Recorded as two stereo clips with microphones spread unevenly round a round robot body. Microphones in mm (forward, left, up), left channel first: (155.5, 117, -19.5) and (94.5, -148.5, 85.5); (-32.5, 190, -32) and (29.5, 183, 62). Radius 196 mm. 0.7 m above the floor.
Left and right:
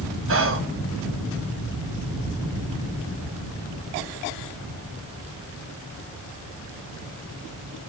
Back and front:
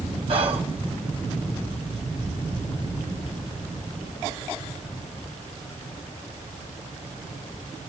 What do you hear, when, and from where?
0.3 s whispering: 110° right, 1.1 m